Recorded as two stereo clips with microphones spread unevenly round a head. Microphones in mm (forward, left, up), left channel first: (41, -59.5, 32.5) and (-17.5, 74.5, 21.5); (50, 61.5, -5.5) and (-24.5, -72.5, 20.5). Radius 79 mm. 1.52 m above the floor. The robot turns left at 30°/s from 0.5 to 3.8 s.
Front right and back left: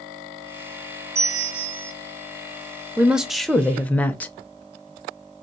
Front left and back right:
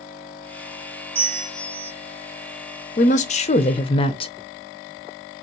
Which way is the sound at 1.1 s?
175° right.